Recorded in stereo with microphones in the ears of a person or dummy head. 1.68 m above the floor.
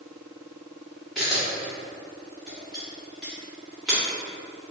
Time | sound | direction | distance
1.1 | a camera shutter | centre (ahead or behind) | 1.6 m